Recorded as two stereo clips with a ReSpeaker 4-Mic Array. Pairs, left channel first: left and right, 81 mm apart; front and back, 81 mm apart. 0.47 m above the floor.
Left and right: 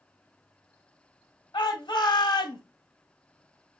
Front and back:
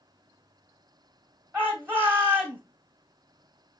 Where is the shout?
115° left, 2.5 m.